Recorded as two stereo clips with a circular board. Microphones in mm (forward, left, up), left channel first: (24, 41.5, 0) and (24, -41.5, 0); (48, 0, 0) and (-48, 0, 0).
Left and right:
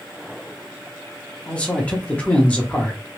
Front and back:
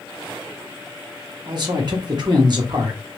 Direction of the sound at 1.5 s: 160° left.